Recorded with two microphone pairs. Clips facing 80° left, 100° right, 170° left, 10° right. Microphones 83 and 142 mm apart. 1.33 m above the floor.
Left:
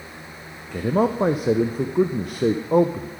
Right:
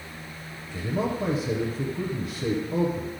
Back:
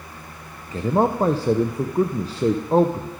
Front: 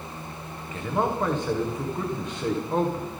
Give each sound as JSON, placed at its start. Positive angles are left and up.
{"t": 0.7, "sound": "a man speaking", "azimuth_deg": 115, "distance_m": 0.6}